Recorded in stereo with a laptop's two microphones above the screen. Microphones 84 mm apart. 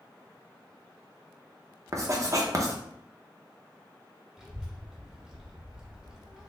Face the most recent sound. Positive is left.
turn(degrees=-5)  # may be behind; listen again after turning